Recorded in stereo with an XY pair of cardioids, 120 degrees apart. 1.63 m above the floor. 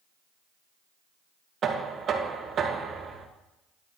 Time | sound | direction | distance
1.6 | knocking | 45° right | 1.7 m